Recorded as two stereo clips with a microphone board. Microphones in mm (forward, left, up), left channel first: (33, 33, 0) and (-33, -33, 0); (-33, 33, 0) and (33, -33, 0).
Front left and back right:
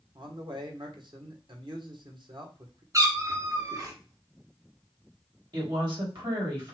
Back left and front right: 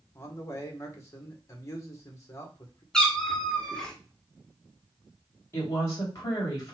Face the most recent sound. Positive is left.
turn(degrees=-170)